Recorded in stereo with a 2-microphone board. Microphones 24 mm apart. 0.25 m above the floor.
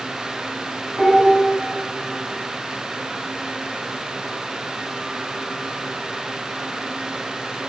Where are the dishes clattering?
10° right (ahead or behind), 1.5 m.